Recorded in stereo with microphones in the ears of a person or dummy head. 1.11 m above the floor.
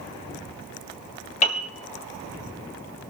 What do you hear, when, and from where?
1.4 s a piano: 40° left (ahead or behind), 2 m